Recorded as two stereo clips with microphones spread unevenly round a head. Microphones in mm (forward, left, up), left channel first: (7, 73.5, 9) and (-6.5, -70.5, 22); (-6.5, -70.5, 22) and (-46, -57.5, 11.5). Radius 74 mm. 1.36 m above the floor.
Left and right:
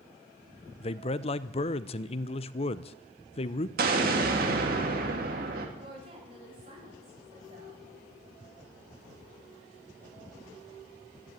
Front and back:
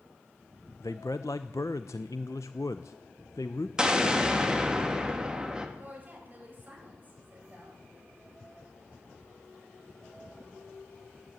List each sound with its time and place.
0.8 s a man speaking: 30° left, 0.6 m
3.8 s an explosion: 125° right, 2.5 m
5.8 s a woman speaking: 150° right, 7.5 m